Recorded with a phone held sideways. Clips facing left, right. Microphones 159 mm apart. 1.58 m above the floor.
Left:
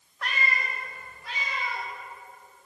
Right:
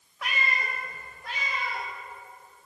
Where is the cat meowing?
5° right (ahead or behind), 0.8 m; by 1.9 s 60° right (ahead or behind), 1.7 m.